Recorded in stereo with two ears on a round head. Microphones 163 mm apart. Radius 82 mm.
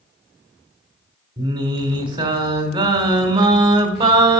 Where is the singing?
30° right (ahead or behind), 1.9 m.